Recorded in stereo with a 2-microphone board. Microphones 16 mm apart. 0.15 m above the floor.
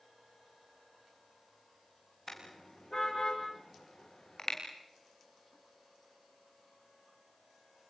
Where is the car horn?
25° left (ahead or behind), 7.5 m; by 4.6 s 35° left (ahead or behind), 6.5 m.